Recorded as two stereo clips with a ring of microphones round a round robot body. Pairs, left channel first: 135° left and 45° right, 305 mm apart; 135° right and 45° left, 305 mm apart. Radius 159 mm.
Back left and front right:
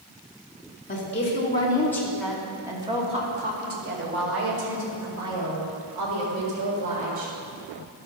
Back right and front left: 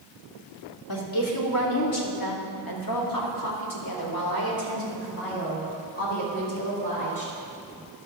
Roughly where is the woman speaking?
Behind.